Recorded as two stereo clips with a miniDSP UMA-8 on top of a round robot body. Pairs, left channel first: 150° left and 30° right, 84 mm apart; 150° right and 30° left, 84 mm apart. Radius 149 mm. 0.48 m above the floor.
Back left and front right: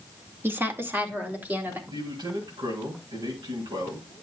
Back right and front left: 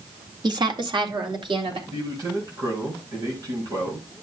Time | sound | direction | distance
0.4 | a woman speaking | 30° left | 1.8 m
1.9 | a man speaking | 10° right | 4 m